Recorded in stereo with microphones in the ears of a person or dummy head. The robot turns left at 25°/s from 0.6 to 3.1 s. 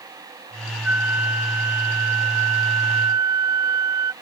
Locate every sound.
0.8 s a flute: 10° right (ahead or behind); by 4.1 s 20° right (ahead or behind)